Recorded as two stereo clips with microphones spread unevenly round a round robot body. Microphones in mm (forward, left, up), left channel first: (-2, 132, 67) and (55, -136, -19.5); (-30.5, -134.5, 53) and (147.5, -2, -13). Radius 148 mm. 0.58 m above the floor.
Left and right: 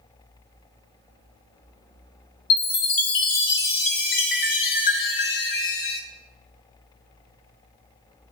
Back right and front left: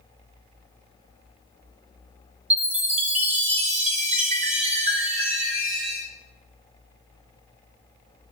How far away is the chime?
About 0.8 m.